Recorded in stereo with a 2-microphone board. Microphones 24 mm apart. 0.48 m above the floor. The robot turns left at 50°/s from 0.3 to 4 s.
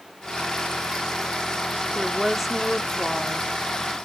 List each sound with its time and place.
1.9 s a woman speaking: 15° right (ahead or behind), 0.7 m; by 3.5 s 15° left (ahead or behind), 0.7 m